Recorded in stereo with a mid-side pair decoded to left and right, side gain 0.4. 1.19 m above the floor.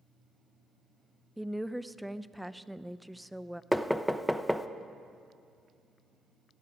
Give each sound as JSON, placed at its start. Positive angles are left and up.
{"t": 1.4, "sound": "a woman speaking", "azimuth_deg": 0, "distance_m": 0.5}
{"t": 3.7, "sound": "knocking", "azimuth_deg": 5, "distance_m": 0.7}